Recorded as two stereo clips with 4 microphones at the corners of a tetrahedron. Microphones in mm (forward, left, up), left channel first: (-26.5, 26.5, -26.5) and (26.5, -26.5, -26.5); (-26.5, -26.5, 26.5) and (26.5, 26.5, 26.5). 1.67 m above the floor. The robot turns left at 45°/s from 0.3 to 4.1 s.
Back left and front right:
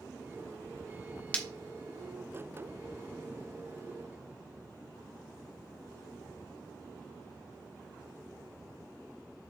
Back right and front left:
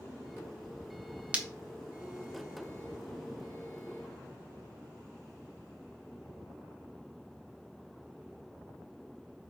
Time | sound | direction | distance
1.3 | breaking glass | 90° left | 1.3 m